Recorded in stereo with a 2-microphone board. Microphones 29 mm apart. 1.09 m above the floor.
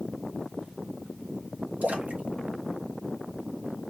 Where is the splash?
60° right (ahead or behind), 0.9 m.